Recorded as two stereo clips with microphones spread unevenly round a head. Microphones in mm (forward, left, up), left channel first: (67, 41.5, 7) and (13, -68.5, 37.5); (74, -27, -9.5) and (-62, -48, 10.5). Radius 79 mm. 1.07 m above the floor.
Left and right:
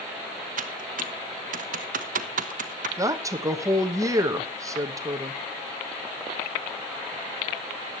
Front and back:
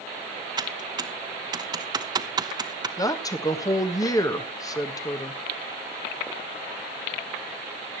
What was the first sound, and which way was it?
Typing on a keyboard, 110° right.